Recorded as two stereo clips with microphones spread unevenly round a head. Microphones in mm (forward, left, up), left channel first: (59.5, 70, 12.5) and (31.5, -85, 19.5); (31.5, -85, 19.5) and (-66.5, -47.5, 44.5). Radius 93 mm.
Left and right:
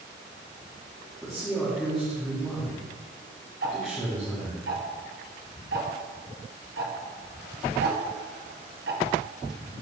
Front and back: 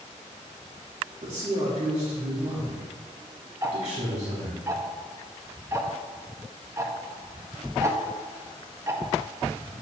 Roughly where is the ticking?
Behind right.